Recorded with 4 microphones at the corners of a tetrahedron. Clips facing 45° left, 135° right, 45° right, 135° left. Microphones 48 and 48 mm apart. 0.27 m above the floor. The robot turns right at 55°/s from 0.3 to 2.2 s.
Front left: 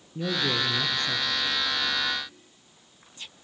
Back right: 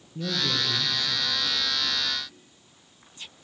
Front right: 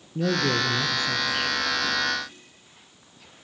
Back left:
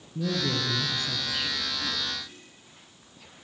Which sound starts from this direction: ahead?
A man speaking, at 0.1 s.